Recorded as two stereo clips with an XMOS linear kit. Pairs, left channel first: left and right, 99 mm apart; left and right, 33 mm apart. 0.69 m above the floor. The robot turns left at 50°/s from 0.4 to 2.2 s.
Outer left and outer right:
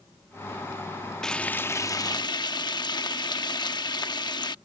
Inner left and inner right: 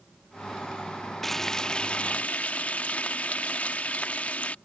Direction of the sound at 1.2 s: 175° left.